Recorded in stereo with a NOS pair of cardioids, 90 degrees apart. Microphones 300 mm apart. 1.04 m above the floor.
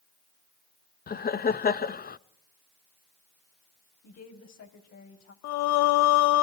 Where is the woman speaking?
60° left, 5.5 m.